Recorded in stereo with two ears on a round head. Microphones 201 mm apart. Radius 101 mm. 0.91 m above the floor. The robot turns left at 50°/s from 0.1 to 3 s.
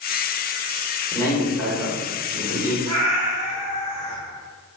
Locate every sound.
1.1 s a man speaking: 25° left, 1.0 m; by 2.8 s 60° right, 1.0 m
2.9 s a cat meowing: 85° right, 1.2 m